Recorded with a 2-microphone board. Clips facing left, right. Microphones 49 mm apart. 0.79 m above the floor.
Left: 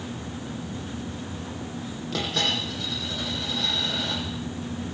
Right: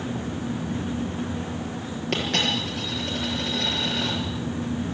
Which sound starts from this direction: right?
A dropped coin, at 2.1 s.